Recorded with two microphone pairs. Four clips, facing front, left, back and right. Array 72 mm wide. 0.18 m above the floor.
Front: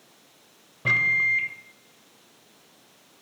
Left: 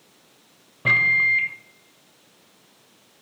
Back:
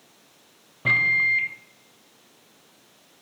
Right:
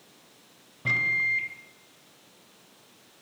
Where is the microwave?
115° left, 1.2 m.